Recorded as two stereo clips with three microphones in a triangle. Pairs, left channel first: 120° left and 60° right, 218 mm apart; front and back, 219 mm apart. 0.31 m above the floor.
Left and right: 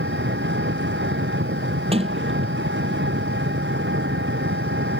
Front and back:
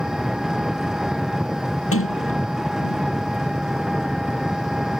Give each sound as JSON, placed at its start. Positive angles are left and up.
{"t": 0.0, "sound": "an engine running", "azimuth_deg": -90}
{"t": 1.9, "sound": "a sliding door", "azimuth_deg": 5}